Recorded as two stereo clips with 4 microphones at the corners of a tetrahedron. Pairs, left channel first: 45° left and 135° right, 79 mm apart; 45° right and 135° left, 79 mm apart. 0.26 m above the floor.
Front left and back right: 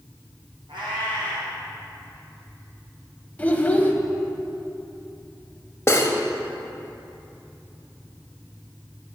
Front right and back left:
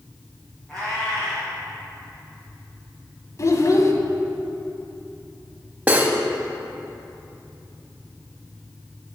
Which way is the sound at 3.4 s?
20° right.